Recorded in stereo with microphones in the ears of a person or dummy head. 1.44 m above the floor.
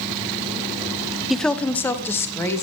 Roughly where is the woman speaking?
Centre.